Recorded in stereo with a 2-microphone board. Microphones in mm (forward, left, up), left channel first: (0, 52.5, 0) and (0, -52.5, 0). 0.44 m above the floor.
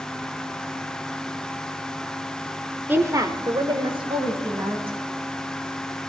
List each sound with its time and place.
2.9 s a woman speaking: 15° right (ahead or behind), 0.8 m; by 5.0 s 60° right (ahead or behind), 3 m